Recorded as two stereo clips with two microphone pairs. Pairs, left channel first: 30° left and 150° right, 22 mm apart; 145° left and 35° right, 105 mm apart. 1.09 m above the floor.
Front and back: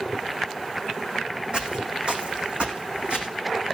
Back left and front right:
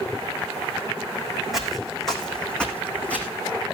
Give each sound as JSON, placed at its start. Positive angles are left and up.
{"t": 1.5, "sound": "footsteps", "azimuth_deg": -125, "distance_m": 3.0}